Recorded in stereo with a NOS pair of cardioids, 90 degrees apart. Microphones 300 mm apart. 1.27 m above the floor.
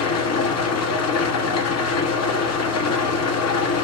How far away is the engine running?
About 1.3 m.